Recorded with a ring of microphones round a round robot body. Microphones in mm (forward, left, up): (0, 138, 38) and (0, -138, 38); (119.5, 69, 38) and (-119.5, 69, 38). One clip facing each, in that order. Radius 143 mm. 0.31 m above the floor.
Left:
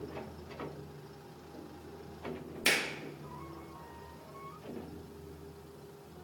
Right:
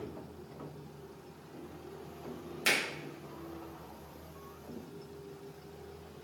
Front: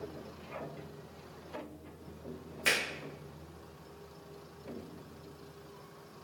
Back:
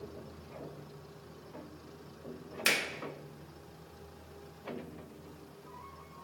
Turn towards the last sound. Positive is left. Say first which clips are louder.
# left 1 dB, even
turn(degrees=170)